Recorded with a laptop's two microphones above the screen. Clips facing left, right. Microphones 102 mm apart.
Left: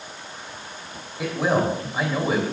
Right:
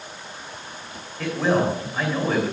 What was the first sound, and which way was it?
A man speaking, 10° left (ahead or behind).